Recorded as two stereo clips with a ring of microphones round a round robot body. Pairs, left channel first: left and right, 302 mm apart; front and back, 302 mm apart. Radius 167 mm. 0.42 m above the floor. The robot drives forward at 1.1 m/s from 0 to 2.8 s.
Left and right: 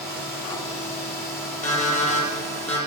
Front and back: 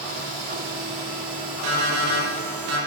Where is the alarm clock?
155° left, 5.5 m; by 2.8 s 160° left, 7 m.